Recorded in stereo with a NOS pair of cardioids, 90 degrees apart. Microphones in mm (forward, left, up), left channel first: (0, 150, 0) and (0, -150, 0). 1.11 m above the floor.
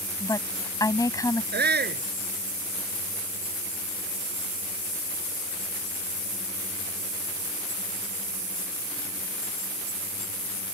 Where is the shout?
35° right.